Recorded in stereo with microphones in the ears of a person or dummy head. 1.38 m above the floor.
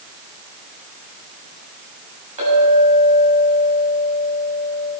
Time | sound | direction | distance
2.4 | a clink | 35° right (ahead or behind) | 6.5 m